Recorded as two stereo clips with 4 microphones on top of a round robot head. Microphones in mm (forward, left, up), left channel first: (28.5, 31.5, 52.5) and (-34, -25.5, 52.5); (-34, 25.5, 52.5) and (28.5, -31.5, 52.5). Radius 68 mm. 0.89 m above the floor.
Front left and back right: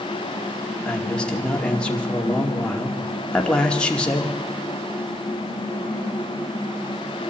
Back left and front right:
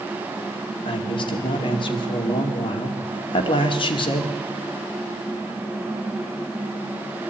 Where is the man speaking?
120° left, 2.5 m.